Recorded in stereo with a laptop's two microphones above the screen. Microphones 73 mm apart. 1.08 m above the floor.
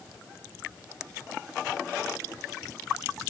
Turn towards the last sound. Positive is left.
No sound to turn to.